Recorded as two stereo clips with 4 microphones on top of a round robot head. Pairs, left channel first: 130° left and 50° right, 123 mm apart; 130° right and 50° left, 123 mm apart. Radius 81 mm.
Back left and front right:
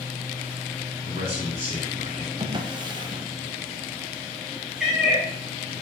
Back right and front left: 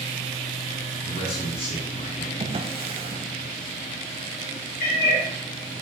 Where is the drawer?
5° left, 1.0 m.